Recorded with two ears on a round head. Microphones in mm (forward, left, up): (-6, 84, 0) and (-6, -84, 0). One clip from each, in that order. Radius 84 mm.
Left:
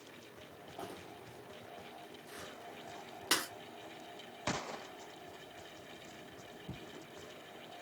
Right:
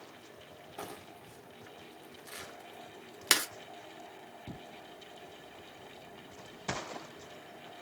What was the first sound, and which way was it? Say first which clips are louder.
Crumpling: right 2 dB; 55° right (ahead or behind).